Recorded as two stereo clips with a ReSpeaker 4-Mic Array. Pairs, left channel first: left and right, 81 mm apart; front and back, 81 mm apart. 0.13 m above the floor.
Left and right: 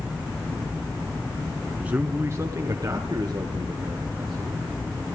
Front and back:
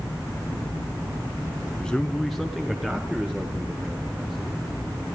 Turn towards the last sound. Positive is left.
turn(degrees=-110)